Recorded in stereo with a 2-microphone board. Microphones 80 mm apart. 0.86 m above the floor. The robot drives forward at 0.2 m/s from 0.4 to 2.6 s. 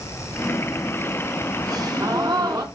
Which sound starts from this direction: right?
A gasp, at 1.7 s.